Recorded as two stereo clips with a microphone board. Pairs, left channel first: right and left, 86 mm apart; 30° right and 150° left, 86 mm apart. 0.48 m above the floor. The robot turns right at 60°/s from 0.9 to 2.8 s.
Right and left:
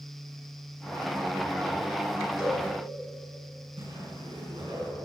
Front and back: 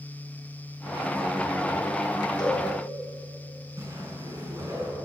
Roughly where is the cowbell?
Ahead.